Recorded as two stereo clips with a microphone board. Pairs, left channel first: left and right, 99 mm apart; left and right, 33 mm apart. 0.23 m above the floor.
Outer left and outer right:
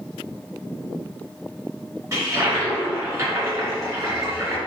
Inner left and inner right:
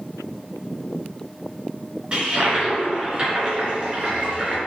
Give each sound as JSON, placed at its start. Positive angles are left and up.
{"t": 2.1, "sound": "a toilet flushing", "side_deg": -30, "distance_m": 1.7}